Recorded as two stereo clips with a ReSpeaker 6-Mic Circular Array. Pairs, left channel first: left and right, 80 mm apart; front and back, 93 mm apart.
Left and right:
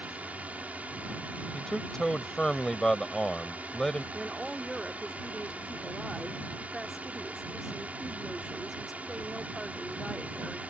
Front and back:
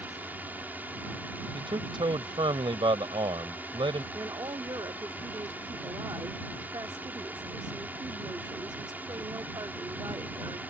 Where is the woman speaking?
175° right.